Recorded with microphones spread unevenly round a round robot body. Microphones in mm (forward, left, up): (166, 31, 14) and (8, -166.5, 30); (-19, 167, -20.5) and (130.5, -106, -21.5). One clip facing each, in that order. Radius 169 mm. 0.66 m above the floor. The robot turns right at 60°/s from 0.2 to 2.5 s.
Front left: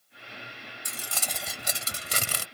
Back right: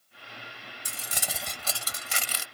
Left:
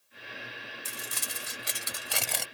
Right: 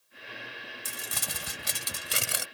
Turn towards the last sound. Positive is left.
turn(degrees=25)